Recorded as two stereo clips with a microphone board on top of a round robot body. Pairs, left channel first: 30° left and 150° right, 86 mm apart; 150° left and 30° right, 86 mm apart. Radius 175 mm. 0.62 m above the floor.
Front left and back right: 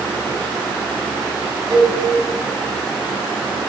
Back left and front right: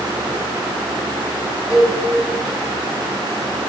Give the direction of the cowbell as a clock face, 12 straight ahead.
4 o'clock.